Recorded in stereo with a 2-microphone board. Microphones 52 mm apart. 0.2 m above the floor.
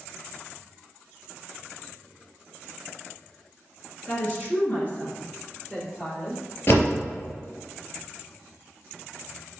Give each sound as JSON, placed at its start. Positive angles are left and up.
{"t": 4.1, "sound": "a woman speaking", "side_deg": 30, "distance_m": 3.0}
{"t": 6.7, "sound": "a door slam", "side_deg": 40, "distance_m": 3.0}